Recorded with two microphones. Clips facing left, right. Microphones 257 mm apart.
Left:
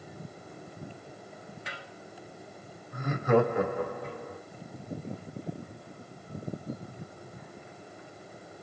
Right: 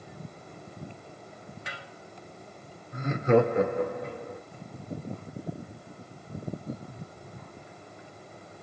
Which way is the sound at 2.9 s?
25° right (ahead or behind).